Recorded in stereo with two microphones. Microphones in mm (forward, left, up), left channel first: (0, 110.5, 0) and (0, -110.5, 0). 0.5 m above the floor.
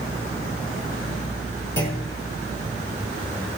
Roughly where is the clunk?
Left.